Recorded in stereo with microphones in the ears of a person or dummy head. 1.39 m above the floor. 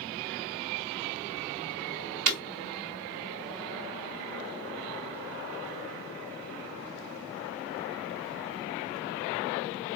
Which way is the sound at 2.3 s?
50° right (ahead or behind).